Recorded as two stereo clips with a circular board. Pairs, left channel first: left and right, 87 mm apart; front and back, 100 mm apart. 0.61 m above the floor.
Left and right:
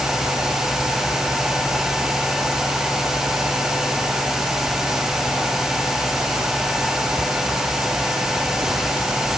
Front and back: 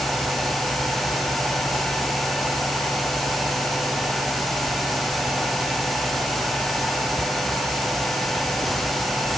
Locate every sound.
Only background noise.